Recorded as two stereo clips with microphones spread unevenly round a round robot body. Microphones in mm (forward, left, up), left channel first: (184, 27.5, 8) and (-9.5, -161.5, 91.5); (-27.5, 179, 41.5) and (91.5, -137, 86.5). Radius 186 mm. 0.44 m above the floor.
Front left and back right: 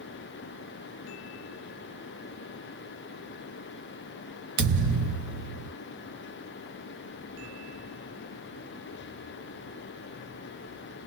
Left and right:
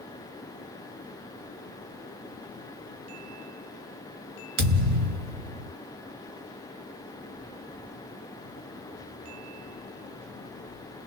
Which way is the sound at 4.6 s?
115° right.